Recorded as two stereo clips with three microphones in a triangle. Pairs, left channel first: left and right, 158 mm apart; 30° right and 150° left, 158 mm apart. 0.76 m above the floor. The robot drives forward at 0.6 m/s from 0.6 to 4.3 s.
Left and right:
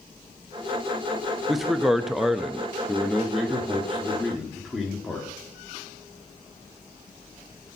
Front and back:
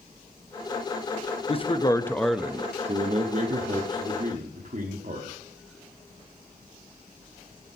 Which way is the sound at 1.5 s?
Straight ahead.